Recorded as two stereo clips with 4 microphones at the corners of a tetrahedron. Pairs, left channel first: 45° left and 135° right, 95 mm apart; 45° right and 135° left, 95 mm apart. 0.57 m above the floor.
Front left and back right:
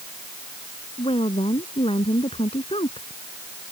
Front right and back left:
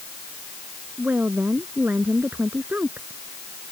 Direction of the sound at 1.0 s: 60° left.